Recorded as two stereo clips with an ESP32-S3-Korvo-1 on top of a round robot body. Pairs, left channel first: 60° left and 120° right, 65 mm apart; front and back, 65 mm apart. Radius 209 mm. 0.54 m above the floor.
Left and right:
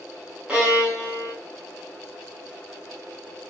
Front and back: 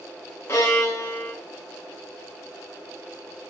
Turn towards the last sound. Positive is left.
turn(degrees=-45)